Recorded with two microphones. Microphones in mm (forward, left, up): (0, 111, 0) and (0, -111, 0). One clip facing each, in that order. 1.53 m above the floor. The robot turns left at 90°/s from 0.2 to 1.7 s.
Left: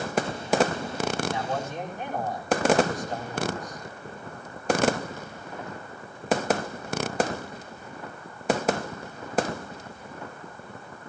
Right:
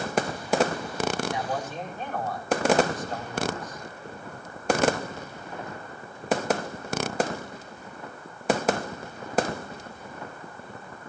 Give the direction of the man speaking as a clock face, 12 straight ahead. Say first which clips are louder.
Left 1 dB; 5 o'clock.